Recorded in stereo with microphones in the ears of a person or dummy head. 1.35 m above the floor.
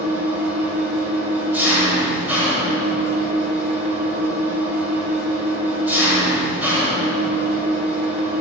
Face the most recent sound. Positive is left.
turn(degrees=-10)  # may be behind; listen again after turning